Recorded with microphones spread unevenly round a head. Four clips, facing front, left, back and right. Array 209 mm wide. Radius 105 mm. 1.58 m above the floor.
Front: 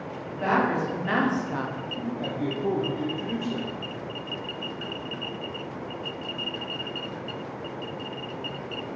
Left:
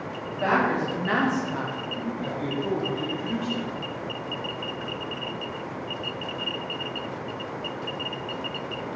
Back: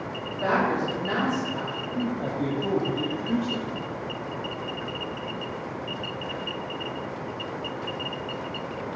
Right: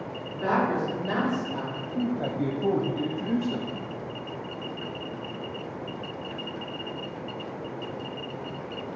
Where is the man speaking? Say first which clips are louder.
Right 6 dB, back 3 dB; 100° right, 0.5 m.